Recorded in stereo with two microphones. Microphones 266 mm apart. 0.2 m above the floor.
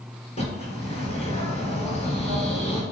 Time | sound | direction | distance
0.4 | a bird | 25° left (ahead or behind) | 2.5 m